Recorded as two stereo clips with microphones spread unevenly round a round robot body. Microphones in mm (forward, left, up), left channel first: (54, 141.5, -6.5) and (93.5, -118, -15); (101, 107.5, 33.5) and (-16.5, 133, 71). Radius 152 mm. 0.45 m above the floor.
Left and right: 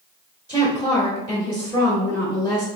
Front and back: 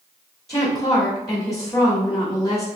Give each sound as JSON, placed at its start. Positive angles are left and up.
{"t": 0.5, "sound": "a woman speaking", "azimuth_deg": 30, "distance_m": 1.3}